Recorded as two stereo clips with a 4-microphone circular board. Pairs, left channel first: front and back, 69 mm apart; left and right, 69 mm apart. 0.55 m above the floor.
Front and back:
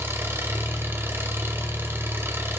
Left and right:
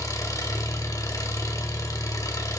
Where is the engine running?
125° left, 1.8 m.